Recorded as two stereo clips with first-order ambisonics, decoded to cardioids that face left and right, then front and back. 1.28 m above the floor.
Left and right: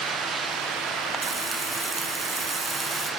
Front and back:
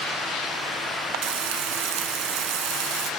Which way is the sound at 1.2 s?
Straight behind.